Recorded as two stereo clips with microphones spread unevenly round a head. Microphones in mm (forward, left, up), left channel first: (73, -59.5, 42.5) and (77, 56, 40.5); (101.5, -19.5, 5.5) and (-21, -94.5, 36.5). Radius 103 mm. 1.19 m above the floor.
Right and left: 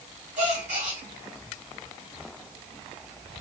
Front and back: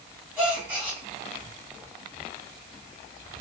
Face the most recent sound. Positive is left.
turn(degrees=130)